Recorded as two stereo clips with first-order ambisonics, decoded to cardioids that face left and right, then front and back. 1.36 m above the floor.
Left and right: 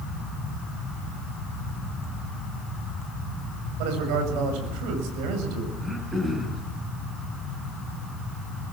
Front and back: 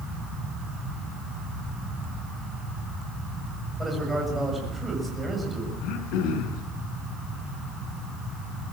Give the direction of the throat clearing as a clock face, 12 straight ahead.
12 o'clock.